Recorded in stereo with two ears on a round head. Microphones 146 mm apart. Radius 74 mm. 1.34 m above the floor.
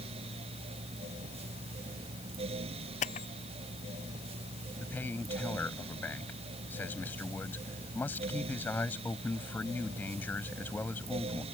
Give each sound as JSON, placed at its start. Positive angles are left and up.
{"t": 3.0, "sound": "a camera shutter", "side_deg": 50}
{"t": 4.8, "sound": "a man speaking", "side_deg": 10}